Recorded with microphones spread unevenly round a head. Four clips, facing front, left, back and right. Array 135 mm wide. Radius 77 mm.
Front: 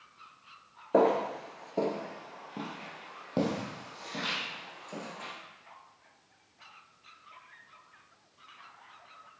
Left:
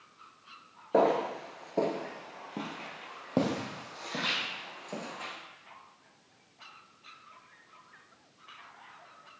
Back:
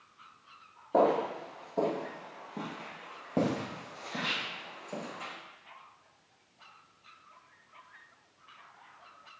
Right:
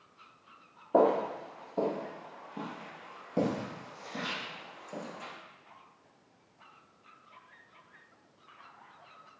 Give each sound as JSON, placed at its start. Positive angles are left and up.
{"t": 0.9, "sound": "footsteps", "azimuth_deg": 5, "distance_m": 1.1}